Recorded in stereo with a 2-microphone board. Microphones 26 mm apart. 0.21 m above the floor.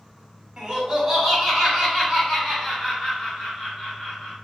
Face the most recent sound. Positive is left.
turn(degrees=25)  # may be behind; listen again after turning